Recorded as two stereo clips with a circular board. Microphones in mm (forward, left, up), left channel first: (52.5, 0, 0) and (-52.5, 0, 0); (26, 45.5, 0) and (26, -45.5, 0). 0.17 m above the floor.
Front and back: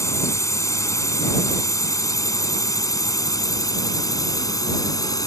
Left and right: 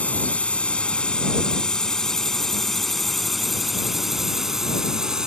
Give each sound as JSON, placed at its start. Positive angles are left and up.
{"t": 0.0, "sound": "a drone", "azimuth_deg": 25}